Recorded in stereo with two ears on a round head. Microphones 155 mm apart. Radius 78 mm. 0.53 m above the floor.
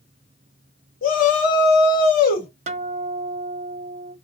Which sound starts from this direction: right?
A guitar, at 2.7 s.